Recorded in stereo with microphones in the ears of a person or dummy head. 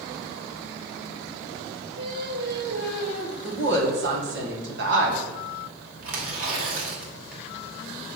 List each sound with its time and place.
2.0 s singing: 45° right (ahead or behind), 1.1 m
3.4 s a woman speaking: 55° right (ahead or behind), 1.6 m
6.0 s tearing paper: 55° right (ahead or behind), 2 m